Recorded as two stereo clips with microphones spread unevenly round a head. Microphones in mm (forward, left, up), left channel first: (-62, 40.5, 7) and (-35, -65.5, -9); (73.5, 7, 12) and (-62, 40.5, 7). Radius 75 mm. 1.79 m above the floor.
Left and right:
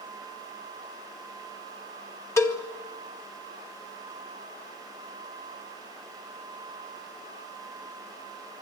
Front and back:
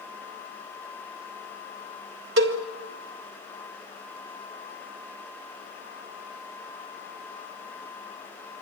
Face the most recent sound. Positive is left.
turn(degrees=165)